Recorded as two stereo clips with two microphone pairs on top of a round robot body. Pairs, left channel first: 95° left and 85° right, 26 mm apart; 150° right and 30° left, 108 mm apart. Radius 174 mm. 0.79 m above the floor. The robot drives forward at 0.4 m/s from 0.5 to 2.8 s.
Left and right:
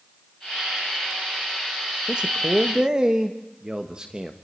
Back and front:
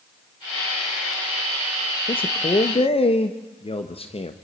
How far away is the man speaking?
About 1.2 m.